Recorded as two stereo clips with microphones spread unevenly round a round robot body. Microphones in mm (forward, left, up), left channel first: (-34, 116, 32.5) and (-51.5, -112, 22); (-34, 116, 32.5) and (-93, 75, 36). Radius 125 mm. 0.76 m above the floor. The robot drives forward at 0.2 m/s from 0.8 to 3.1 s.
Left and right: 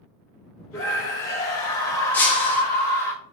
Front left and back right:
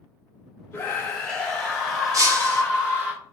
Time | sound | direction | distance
0.7 | a scream | 30° left | 0.7 m
2.1 | breaking glass | 170° left | 0.8 m